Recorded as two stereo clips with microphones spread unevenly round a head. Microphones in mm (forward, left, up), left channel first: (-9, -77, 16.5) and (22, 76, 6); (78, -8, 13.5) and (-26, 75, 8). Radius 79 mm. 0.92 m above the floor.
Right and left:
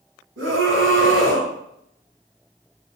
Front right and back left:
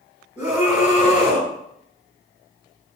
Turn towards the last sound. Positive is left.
turn(degrees=70)